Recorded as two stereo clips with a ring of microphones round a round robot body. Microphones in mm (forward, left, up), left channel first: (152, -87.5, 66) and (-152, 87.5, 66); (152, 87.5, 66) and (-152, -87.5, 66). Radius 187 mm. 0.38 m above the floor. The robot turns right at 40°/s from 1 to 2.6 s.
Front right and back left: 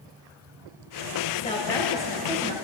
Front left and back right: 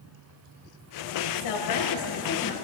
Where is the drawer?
I don't hear a drawer.